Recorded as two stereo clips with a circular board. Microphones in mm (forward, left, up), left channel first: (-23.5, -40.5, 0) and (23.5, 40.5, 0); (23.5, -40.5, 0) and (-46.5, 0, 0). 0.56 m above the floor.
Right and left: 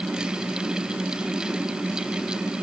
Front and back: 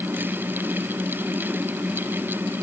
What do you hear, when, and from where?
Only background noise.